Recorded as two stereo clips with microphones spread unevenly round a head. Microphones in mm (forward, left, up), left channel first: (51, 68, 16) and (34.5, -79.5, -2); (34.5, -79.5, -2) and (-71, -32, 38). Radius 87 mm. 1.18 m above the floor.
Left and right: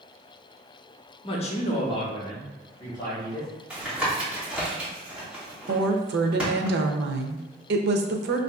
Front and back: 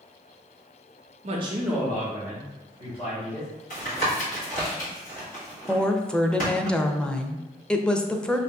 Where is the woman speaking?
105° right, 0.6 m.